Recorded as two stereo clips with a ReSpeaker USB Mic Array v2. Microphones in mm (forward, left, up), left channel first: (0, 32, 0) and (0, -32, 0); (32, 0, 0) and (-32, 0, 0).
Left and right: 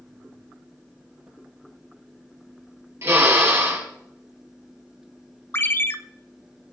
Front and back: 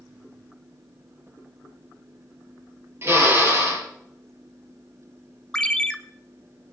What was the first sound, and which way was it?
A drill, 135° right.